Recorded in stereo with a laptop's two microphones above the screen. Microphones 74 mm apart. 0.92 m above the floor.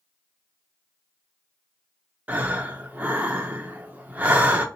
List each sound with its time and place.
2.3 s breathing: 20° right (ahead or behind), 0.5 m